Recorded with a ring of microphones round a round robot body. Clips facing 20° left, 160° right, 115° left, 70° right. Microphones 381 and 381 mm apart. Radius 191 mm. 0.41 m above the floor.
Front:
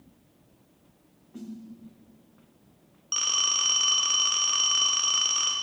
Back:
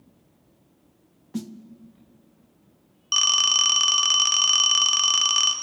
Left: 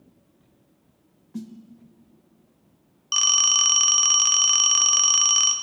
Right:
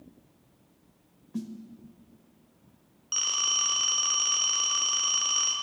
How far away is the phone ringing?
About 0.8 m.